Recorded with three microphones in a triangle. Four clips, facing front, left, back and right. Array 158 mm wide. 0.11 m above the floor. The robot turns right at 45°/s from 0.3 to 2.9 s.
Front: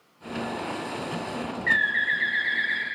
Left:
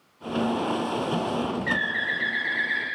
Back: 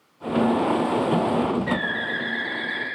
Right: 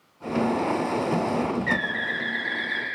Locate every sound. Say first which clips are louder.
1.7 s a bird: right 1 dB, even; straight behind, 0.7 m; by 2.9 s 130° right, 0.7 m